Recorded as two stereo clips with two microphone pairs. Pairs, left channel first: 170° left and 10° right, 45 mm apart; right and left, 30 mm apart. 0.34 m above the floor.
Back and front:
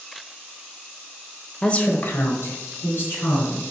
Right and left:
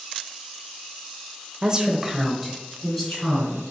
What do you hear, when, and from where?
1.6 s a woman speaking: 115° left, 0.9 m; by 3.7 s 170° right, 3.5 m